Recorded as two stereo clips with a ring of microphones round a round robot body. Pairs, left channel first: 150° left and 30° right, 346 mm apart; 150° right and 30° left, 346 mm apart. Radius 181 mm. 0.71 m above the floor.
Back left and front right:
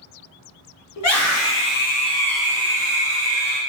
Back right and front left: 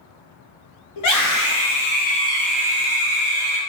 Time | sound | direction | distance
1.0 | a scream | 175° right | 1.5 m